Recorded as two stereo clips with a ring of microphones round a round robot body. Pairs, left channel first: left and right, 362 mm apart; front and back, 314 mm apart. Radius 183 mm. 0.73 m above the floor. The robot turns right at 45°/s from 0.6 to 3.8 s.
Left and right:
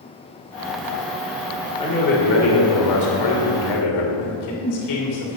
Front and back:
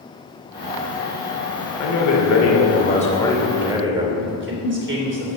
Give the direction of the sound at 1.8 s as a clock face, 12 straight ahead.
12 o'clock.